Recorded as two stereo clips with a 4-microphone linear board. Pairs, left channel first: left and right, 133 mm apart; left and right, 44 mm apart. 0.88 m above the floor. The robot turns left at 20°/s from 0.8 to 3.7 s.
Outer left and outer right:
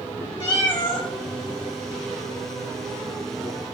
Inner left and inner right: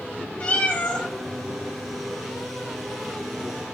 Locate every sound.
0.4 s a cat meowing: 40° left (ahead or behind), 2.5 m; by 1.1 s 45° left (ahead or behind), 2.5 m